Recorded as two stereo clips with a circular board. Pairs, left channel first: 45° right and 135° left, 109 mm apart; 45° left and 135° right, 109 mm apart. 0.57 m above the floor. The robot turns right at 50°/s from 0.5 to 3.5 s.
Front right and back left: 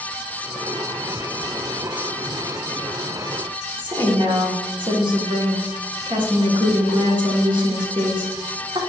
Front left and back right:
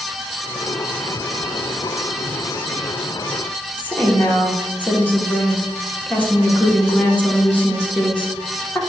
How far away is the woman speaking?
About 1.4 m.